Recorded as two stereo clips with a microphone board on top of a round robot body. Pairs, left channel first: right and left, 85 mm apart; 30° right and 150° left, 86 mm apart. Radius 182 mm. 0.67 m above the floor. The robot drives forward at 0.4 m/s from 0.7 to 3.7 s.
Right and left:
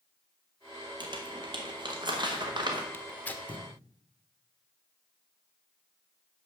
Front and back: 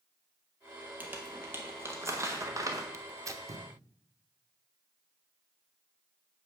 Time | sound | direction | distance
1.0 | crumpling | 80° left | 1.8 m
2.9 | tearing paper | 155° right | 0.7 m